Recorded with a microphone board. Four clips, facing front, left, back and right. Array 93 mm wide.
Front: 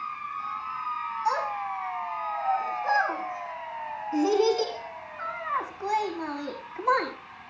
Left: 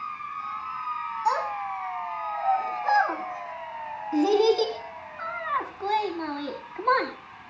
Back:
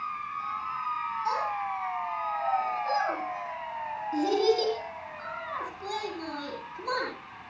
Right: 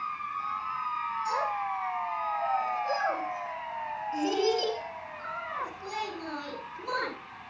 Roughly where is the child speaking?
Left.